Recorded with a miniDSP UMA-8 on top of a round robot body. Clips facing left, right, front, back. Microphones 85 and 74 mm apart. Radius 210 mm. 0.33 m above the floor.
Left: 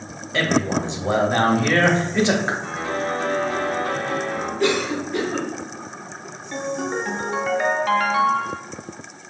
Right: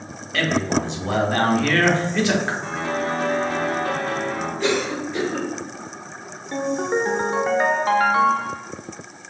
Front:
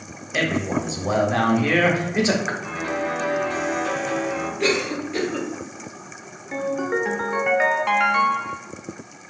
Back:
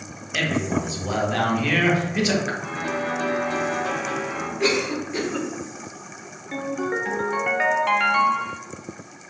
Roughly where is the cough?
Left.